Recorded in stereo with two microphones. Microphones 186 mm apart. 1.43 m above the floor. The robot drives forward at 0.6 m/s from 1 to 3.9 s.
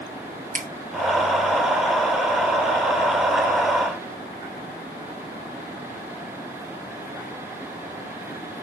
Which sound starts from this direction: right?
A finger snap, at 0.5 s.